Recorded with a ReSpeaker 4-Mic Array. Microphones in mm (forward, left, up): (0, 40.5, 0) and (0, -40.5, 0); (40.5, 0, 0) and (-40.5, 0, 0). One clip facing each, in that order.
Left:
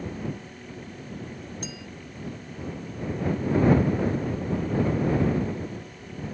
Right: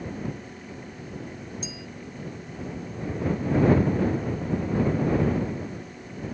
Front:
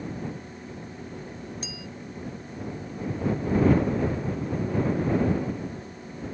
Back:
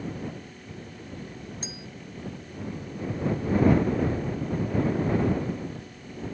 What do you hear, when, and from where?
1.6 s a clink: 125° left